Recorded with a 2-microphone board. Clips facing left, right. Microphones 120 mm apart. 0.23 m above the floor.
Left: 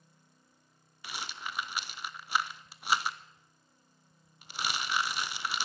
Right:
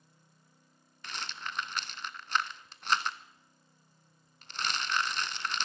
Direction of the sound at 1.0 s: 10° left (ahead or behind).